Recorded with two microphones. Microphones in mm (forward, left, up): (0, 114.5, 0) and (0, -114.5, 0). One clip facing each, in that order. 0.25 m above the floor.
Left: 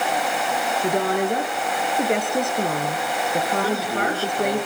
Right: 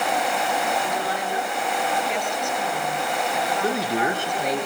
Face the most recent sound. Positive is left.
turn(degrees=-20)  # may be behind; listen again after turning